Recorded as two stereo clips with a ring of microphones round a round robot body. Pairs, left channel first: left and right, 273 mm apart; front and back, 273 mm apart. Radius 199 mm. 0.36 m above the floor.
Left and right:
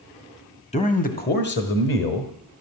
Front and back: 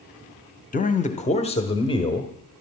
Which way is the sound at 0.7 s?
40° left.